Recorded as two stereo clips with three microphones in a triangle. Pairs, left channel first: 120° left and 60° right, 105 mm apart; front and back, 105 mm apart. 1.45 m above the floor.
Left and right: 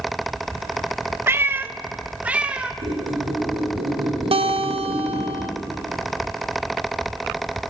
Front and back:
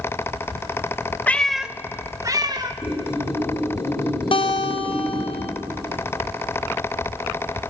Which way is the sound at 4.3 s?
35° right.